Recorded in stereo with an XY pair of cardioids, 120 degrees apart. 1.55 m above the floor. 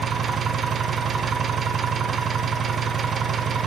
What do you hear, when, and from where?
0.0 s an engine running: 35° right, 1.0 m